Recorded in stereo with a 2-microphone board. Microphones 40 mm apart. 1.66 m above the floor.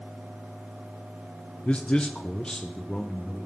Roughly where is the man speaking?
Left.